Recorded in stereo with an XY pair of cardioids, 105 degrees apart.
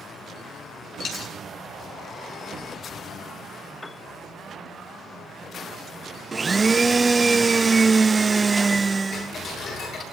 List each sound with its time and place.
1.0 s a dropped coin: 55° left, 5 m
3.8 s a piano: 15° left, 0.6 m
6.3 s a blender: 25° right, 0.9 m
9.1 s ticking: 55° left, 9.5 m